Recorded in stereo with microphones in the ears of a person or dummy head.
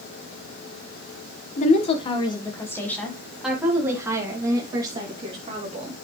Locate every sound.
1.6 s a woman speaking: 40° left (ahead or behind), 1.6 m; by 6.0 s 30° right (ahead or behind), 3.5 m